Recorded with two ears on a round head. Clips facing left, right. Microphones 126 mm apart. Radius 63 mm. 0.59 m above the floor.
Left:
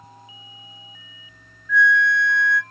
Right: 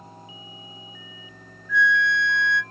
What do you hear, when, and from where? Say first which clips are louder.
1.7 s a flute: left 3 dB; 30° right (ahead or behind), 0.8 m